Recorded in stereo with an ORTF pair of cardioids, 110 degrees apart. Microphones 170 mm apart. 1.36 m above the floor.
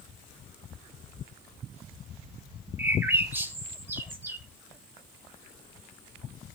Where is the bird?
15° right, 2 m.